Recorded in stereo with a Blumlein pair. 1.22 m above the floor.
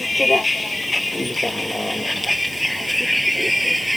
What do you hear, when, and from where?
0.0 s a vehicle: 10° left; by 4.0 s straight ahead